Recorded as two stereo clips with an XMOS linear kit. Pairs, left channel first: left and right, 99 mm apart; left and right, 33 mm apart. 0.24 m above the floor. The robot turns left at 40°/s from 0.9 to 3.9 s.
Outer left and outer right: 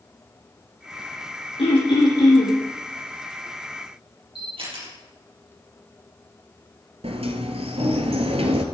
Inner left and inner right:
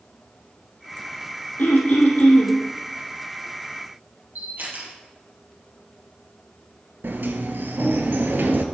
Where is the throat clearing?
70° left, 3.5 m; by 2.6 s 30° left, 3.5 m.